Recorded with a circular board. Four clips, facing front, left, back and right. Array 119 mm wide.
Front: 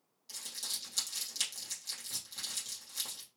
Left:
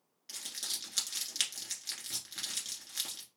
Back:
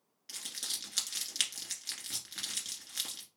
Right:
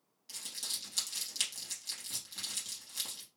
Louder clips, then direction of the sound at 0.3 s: Left 2 dB, back 2 dB; 150° left.